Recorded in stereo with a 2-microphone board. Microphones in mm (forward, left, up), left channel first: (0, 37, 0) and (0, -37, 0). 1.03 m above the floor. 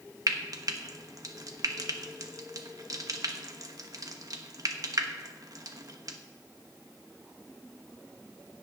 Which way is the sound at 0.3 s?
55° right (ahead or behind).